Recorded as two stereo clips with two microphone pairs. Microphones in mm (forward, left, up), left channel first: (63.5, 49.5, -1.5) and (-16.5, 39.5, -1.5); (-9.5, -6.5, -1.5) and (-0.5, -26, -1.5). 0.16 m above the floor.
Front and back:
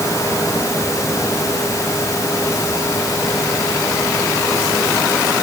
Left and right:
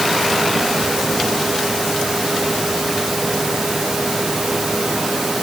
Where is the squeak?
I don't hear a squeak.